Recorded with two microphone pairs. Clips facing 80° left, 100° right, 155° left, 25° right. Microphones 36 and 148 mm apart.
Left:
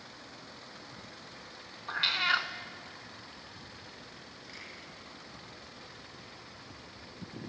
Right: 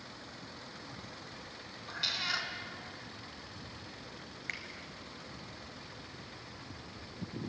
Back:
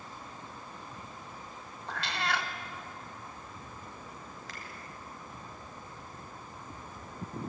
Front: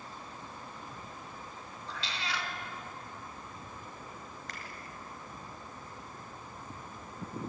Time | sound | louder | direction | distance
1.9 | a cat meowing | left 7 dB, back 5 dB | 135° left | 1.4 m
4.5 | a finger snap | right 9 dB, even | 115° right | 4.5 m